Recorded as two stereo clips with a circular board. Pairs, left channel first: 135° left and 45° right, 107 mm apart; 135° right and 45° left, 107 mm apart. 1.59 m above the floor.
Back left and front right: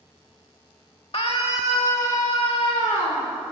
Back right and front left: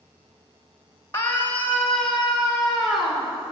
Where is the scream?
160° left, 1.7 m; by 3.3 s 135° left, 4 m.